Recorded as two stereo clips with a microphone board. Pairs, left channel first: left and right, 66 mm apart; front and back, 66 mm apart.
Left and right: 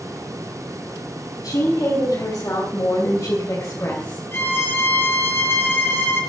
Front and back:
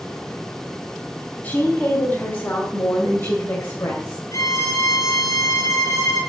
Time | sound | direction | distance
1.4 | a woman speaking | 60° left | 4 m
4.3 | a violin | 30° left | 6 m